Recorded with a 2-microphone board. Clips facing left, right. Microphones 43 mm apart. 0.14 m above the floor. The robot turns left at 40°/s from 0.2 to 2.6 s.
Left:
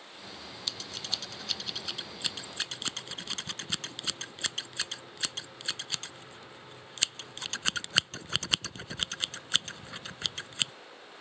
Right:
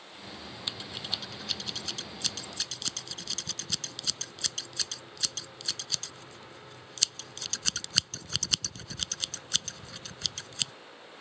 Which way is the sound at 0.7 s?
20° right (ahead or behind).